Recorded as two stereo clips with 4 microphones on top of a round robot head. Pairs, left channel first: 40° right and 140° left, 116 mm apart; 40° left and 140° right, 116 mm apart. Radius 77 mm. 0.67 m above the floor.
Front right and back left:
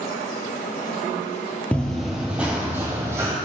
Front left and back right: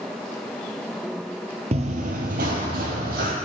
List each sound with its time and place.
1.7 s running footsteps: 120° right, 0.8 m; by 3.3 s 150° right, 1.5 m